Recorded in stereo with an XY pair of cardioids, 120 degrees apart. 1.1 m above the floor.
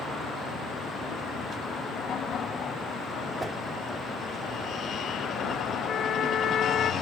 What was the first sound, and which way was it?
A whoosh, 20° right.